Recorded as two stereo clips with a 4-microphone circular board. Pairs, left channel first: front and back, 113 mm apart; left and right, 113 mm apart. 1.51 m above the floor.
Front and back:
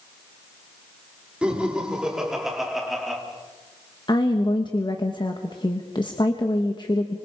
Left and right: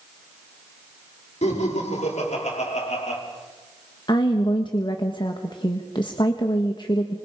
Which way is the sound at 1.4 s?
100° left.